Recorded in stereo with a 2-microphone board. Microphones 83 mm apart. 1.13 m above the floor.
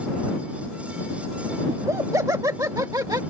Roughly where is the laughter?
Right.